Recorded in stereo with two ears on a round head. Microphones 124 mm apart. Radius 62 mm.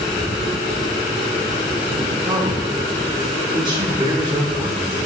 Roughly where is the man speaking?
Right.